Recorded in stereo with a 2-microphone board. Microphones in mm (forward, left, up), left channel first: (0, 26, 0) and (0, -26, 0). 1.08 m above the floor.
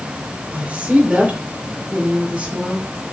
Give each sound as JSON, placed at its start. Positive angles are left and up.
{"t": 0.5, "sound": "a woman speaking", "side_deg": -20, "distance_m": 4.5}